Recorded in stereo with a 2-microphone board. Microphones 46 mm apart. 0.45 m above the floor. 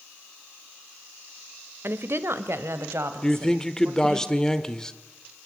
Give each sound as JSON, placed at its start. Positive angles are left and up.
{"t": 1.8, "sound": "a woman speaking", "side_deg": -55, "distance_m": 1.5}
{"t": 3.2, "sound": "a man speaking", "side_deg": 15, "distance_m": 1.2}